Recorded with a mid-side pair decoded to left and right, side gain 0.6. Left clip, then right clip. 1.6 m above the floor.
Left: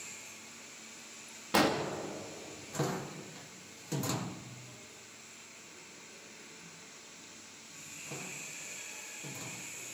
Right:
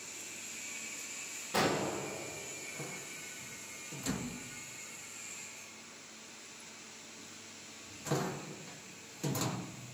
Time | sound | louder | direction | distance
1.5 | an explosion | left 3 dB | 45° left | 2 m